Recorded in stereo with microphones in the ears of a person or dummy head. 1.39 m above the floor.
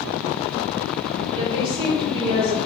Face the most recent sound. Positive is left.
turn(degrees=-25)  # may be behind; listen again after turning